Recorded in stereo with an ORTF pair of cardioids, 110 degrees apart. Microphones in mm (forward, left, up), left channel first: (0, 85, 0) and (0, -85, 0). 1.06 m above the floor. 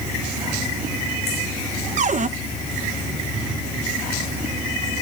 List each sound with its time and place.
2.0 s a cupboard door: 50° right, 0.7 m